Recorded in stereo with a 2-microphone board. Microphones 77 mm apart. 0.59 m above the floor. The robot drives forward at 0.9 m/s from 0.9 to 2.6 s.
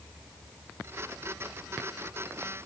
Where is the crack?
No crack in this recording.